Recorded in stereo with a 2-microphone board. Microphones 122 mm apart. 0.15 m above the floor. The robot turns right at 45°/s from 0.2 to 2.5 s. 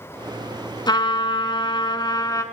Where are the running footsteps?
I don't hear running footsteps.